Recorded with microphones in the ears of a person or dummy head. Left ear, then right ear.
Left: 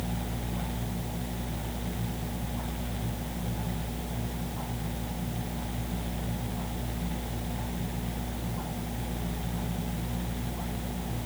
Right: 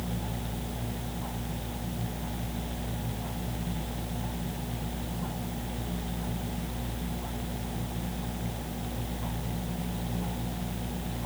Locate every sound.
Only background noise.